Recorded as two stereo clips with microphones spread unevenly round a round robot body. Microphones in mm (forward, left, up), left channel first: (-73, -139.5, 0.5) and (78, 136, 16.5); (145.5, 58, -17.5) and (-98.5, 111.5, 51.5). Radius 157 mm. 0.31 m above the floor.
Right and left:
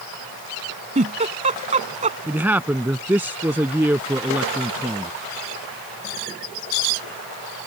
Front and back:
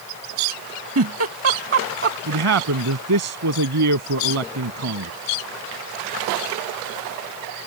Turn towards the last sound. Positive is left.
turn(degrees=145)